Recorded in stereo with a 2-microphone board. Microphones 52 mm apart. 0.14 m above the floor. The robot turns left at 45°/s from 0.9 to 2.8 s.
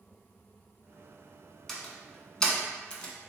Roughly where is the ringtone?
I don't hear a ringtone.